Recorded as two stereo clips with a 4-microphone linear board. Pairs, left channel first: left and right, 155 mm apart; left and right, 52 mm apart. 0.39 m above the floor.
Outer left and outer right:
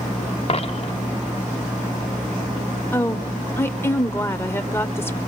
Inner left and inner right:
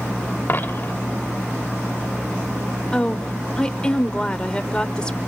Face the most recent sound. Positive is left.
turn(degrees=15)  # may be behind; listen again after turning